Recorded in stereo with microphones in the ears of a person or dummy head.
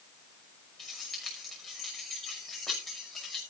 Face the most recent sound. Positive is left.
turn(degrees=10)  # may be behind; listen again after turning